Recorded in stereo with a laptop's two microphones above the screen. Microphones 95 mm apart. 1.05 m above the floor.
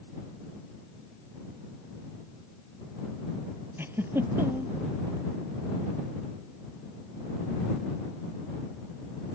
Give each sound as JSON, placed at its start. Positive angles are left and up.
{"t": 3.8, "sound": "a giggle", "side_deg": -25}